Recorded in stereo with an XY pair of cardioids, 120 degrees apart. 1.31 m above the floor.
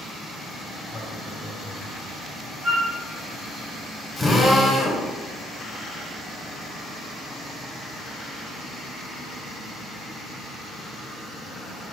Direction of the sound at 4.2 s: 5° left.